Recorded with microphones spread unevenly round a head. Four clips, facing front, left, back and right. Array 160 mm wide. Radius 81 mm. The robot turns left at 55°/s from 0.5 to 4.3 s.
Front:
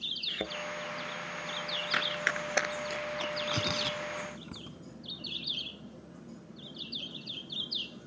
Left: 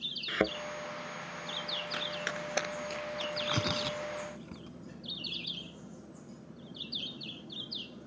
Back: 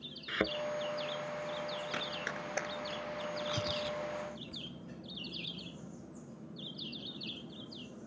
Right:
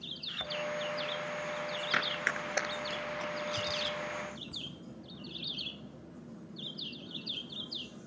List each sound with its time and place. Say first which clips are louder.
0.3 s a thud: left 12 dB, back 4 dB; 105° left
1.9 s running footsteps: right 4 dB, front 6 dB; 65° right; by 3.3 s straight ahead
3.4 s tearing paper: left 2 dB, front 3 dB; 75° left; by 4.8 s 20° left